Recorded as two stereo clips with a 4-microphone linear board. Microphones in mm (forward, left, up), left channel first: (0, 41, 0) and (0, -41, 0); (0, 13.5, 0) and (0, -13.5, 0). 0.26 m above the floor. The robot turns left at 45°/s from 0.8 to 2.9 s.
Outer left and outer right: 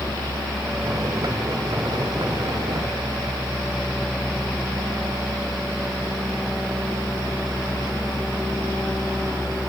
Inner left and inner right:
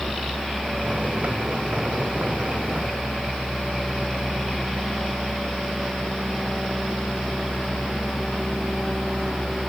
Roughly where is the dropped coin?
No dropped coin in this recording.